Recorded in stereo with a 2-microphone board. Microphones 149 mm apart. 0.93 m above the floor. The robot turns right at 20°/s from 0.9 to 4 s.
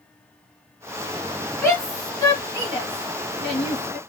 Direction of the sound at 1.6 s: 15° left (ahead or behind).